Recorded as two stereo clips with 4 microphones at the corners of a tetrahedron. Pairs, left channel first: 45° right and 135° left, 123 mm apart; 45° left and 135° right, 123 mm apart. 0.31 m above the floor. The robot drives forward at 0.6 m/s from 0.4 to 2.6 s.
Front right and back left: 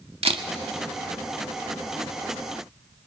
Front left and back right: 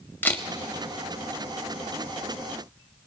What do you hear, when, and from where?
0.2 s a camera shutter: 115° left, 0.6 m; by 0.5 s 120° left, 0.6 m